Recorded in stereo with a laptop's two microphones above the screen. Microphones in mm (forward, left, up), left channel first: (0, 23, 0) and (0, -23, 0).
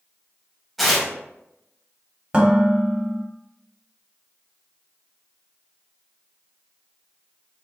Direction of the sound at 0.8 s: 5° left (ahead or behind).